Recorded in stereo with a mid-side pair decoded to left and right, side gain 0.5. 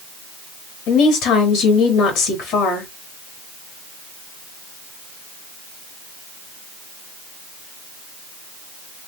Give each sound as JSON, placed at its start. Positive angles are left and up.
{"t": 0.9, "sound": "a woman speaking", "azimuth_deg": 70, "distance_m": 2.5}